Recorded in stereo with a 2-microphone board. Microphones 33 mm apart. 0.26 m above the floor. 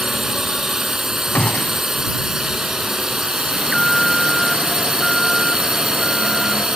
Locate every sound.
0.0 s a drone: 20° right (ahead or behind)
1.4 s a gunshot: 55° left (ahead or behind)
3.5 s an alarm: 15° left (ahead or behind)